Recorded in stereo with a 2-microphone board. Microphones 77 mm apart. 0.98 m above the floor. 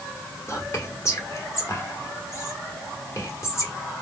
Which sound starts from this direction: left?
Whispering, at 0.5 s.